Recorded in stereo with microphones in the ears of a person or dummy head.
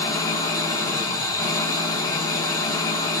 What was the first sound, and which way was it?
An engine running, 20° left (ahead or behind).